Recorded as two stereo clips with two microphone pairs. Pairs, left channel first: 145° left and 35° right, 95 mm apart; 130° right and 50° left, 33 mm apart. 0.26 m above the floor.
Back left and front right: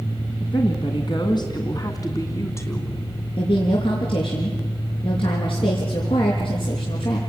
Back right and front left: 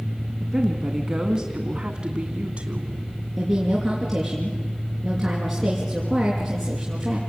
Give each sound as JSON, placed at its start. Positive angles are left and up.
{"t": 0.4, "sound": "a woman speaking", "azimuth_deg": 135, "distance_m": 2.5}
{"t": 3.4, "sound": "a woman speaking", "azimuth_deg": 135, "distance_m": 5.0}